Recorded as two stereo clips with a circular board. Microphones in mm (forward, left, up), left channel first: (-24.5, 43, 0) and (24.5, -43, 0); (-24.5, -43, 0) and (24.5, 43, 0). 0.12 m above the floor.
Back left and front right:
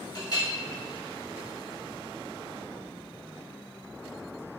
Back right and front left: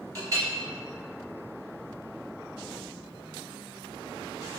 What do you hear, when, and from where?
0.1 s a clink: 100° left, 1.5 m